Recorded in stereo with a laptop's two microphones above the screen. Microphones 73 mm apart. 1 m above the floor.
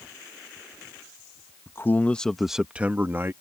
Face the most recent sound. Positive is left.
turn(degrees=-35)  # may be behind; listen again after turning